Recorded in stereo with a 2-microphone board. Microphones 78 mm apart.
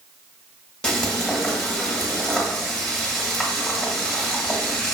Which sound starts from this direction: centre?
Frying, at 0.8 s.